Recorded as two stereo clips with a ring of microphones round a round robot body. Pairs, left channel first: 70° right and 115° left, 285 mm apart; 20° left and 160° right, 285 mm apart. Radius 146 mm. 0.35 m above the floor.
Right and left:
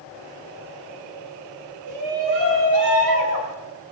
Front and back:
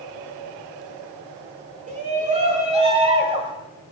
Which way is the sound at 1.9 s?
135° left.